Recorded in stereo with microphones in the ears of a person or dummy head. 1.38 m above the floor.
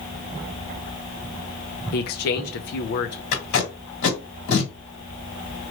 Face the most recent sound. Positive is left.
turn(degrees=55)  # may be behind; listen again after turning